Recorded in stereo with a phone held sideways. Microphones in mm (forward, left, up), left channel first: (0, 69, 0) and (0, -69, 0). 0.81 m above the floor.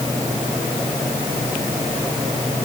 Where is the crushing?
I don't hear crushing.